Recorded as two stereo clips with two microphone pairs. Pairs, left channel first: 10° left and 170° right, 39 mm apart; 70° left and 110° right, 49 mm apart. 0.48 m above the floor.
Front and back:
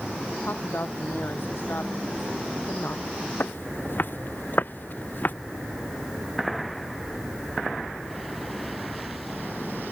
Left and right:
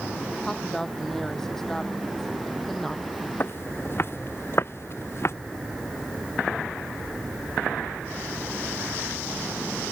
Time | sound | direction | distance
0.4 | a woman speaking | 10° right | ?
3.4 | footsteps | 35° left | ?